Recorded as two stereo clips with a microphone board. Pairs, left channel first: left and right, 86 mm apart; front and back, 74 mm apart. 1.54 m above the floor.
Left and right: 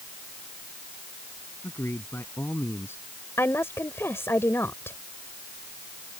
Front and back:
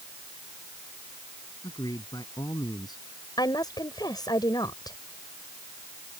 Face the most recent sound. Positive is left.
turn(degrees=30)